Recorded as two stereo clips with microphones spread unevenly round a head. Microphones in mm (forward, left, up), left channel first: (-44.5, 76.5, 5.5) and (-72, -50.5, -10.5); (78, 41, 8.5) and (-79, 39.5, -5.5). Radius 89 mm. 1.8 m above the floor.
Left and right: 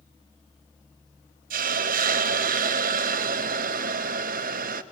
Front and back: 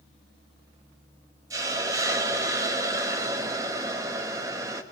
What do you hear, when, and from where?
1.5 s a hiss: 105° right, 0.8 m